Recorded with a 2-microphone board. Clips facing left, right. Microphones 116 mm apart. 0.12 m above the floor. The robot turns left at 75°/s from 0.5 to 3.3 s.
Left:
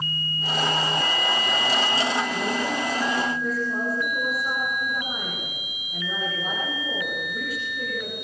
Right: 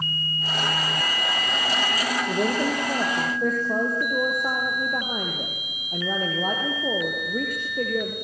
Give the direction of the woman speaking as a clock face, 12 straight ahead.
1 o'clock.